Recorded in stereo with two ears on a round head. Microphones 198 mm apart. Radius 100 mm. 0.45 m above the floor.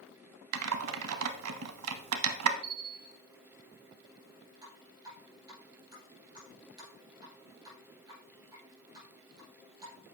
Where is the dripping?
20° right (ahead or behind), 4.5 m.